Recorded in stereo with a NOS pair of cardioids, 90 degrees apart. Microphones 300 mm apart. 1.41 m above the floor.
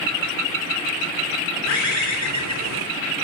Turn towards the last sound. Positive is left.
turn(degrees=70)